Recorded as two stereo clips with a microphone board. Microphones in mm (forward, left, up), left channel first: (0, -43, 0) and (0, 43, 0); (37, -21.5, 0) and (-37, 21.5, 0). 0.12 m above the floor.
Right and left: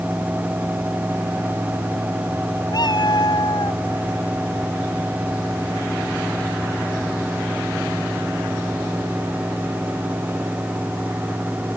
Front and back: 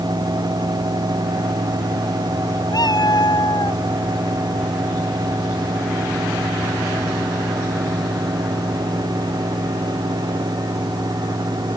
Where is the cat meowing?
60° right.